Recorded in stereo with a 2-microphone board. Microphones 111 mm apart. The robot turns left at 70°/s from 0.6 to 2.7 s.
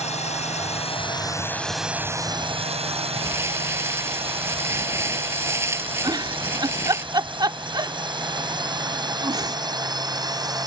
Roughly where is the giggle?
Right.